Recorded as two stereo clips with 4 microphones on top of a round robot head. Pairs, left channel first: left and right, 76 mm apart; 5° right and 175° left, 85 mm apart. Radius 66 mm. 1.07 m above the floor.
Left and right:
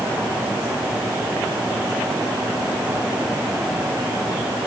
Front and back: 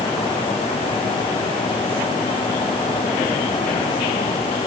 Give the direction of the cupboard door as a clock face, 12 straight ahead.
I don't hear a cupboard door.